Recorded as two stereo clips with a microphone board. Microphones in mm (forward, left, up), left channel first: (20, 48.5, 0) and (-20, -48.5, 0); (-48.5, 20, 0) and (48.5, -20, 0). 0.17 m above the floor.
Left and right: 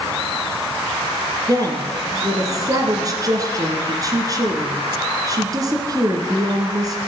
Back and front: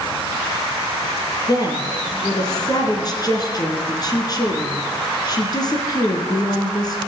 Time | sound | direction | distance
1.5 | a woman speaking | 160° right | 1.8 m